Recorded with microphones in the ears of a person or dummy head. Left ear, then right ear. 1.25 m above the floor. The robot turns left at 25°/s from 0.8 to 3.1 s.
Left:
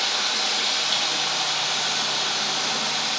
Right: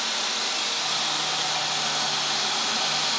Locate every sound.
0.0 s running water: 55° left, 2 m; by 3.2 s 5° right, 2 m